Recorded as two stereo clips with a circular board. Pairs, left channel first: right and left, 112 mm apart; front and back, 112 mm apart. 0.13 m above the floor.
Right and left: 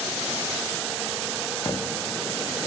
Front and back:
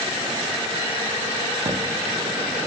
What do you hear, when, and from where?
1.6 s footsteps: 145° right, 0.5 m